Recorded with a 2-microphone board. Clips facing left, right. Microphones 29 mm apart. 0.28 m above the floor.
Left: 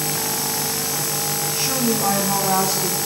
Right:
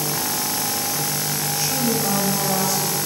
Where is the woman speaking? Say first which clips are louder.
Left 1 dB; 40° left (ahead or behind), 1.6 m; by 3.0 s 65° left (ahead or behind), 1.9 m.